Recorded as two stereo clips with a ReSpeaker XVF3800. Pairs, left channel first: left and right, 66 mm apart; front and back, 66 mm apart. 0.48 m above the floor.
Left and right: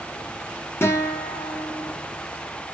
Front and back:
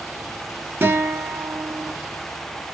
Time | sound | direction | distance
0.8 | a guitar | 130° left | 0.7 m